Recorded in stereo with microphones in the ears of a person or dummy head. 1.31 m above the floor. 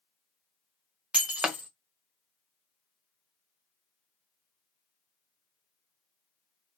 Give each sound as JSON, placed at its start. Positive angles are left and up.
{"t": 1.1, "sound": "breaking glass", "side_deg": -5, "distance_m": 0.6}